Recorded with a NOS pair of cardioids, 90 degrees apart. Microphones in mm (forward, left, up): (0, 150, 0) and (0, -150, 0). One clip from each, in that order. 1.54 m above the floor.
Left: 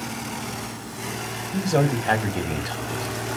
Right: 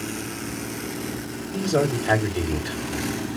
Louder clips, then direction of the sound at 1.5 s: Even; 10° left.